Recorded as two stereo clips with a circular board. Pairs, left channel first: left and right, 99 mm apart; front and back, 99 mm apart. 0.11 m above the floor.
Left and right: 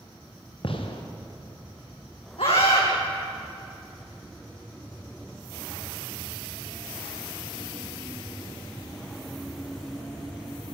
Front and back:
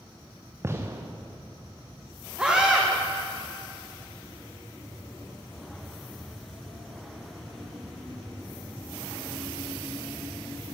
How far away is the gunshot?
About 3 m.